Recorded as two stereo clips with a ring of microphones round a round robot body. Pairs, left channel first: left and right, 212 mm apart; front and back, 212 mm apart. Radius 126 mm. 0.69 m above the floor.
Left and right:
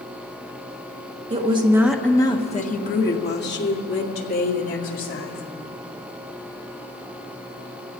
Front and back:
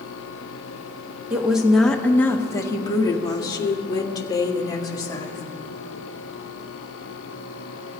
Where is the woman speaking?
100° right, 1.2 m; by 5.4 s 70° left, 4 m.